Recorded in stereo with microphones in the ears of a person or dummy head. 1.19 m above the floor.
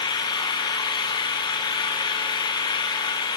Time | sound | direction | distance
0.0 | an engine running | 20° left (ahead or behind) | 0.8 m